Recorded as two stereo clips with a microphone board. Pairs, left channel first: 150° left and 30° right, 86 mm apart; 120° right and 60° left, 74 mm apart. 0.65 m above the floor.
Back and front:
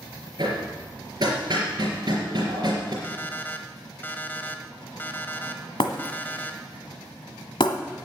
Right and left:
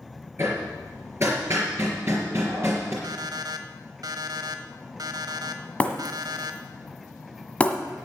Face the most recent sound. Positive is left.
turn(degrees=170)